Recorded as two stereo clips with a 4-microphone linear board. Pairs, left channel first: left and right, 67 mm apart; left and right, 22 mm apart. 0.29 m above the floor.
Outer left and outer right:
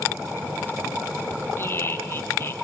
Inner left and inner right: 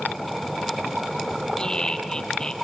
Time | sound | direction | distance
1.6 | laughter | 35° left (ahead or behind) | 2.5 m